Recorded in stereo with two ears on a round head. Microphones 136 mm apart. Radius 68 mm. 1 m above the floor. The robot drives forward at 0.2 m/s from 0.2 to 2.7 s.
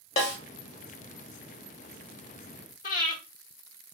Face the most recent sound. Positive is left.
turn(degrees=50)  # may be behind; listen again after turning